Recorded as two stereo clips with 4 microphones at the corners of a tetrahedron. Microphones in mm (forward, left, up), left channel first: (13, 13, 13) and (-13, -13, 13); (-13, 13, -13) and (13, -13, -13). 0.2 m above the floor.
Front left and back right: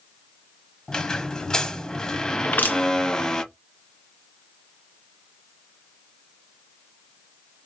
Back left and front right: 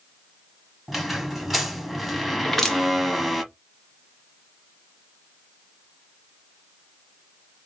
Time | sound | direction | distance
0.9 | a squeak | 40° left | 0.8 m
2.4 | crushing | 50° left | 2.5 m